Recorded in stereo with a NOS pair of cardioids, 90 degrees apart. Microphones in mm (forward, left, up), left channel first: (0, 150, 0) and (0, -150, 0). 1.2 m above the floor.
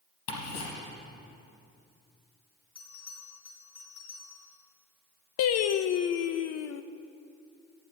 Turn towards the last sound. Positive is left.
turn(degrees=65)